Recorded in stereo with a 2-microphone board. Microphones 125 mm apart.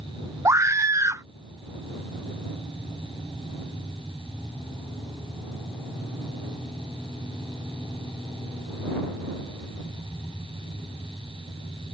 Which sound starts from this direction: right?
A scream, at 0.5 s.